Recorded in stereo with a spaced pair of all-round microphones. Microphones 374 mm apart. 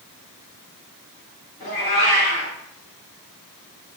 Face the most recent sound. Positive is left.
turn(degrees=45)  # may be behind; listen again after turning